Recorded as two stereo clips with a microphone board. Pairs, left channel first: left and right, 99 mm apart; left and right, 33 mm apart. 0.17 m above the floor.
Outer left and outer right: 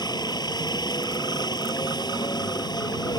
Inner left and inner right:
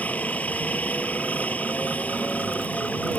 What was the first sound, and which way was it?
A helicopter, 45° left (ahead or behind).